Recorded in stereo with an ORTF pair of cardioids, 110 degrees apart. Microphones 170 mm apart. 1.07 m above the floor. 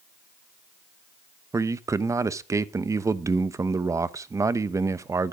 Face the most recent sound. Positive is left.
turn(degrees=-20)